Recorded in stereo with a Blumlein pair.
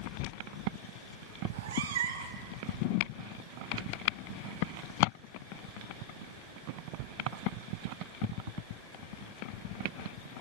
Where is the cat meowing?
55° right, 1.1 m.